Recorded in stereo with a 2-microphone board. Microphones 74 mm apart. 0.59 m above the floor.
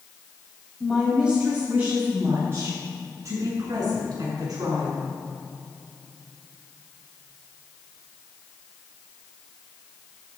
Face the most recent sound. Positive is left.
turn(degrees=-60)  # may be behind; listen again after turning